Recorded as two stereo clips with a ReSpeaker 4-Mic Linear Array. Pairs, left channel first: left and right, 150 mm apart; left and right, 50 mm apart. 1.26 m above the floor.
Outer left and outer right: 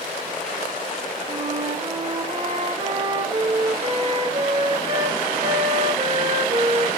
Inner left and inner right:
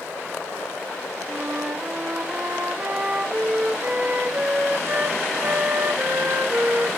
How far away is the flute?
About 1.3 m.